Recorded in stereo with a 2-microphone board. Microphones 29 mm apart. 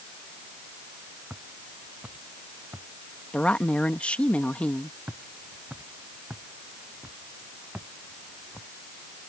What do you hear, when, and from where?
1.3 s footsteps: 80° right; by 2.9 s 75° right (ahead or behind)
3.3 s a woman speaking: 50° left (ahead or behind)
5.1 s footsteps: 65° right (ahead or behind); by 8.7 s 70° right (ahead or behind)